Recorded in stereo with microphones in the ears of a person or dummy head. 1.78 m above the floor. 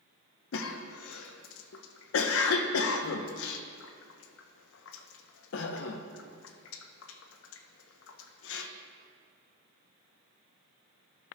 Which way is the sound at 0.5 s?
75° left (ahead or behind).